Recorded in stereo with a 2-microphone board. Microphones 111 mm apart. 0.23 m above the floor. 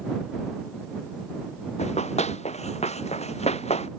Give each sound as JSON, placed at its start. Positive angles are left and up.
{"t": 1.8, "sound": "running footsteps", "side_deg": 80}